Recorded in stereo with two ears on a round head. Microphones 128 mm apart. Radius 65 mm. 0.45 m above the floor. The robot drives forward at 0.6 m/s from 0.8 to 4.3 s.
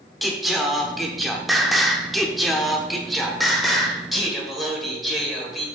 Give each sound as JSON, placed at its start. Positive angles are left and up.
{"t": 0.2, "sound": "singing", "side_deg": 0, "distance_m": 1.1}